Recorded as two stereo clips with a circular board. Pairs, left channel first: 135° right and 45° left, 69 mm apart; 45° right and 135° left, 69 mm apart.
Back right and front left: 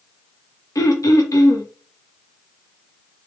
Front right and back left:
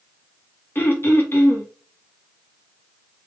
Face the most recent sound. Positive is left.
turn(degrees=-100)